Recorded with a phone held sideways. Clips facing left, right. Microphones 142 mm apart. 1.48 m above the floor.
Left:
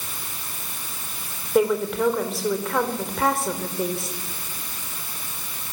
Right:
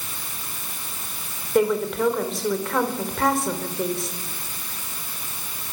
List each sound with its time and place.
1.6 s a woman speaking: 5° left (ahead or behind), 4.5 m